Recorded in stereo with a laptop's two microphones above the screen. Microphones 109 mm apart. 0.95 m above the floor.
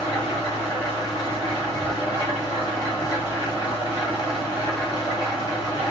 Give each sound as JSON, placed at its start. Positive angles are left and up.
{"t": 0.0, "sound": "an engine running", "side_deg": 40, "distance_m": 3.0}